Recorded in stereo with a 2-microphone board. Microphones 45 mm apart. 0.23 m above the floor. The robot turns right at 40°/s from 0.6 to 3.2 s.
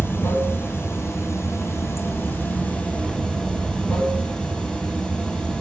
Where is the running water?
55° left, 1.1 m; by 5.6 s 155° left, 1.1 m.